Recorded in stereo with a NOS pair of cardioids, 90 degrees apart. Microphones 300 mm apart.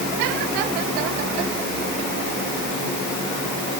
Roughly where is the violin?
I don't hear a violin.